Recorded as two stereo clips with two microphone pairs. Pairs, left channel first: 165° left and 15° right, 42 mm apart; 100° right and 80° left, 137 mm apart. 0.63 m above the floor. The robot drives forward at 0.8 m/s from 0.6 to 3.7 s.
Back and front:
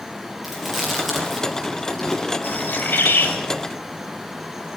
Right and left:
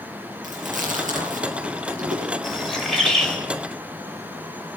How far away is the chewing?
About 5.5 m.